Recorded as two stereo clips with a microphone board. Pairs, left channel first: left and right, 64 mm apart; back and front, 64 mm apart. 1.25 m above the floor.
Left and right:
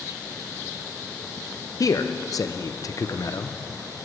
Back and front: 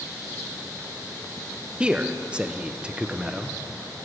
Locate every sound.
1.8 s a man speaking: 70° left, 0.7 m